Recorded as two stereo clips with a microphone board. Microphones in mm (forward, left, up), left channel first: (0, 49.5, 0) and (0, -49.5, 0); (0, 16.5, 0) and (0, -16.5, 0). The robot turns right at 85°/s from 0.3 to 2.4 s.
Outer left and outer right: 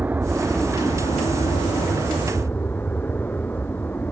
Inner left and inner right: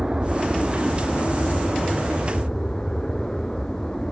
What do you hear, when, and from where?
0.0 s an aircraft: 20° right; by 4.1 s 160° left